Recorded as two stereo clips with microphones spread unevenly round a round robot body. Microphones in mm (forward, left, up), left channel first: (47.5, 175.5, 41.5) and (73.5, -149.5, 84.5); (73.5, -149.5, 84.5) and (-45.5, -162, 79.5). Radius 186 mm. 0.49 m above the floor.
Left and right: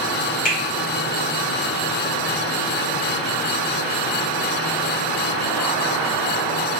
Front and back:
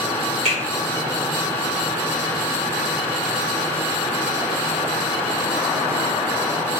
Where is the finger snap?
155° left, 1.3 m.